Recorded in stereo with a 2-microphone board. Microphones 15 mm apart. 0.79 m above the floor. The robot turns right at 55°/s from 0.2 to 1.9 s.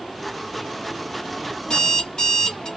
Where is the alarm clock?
60° left (ahead or behind), 2.5 m; by 2.7 s 45° left (ahead or behind), 2.5 m.